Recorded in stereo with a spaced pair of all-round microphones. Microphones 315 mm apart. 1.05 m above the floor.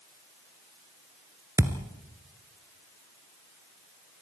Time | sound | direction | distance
1.6 | a thud | 10° right (ahead or behind) | 1.4 m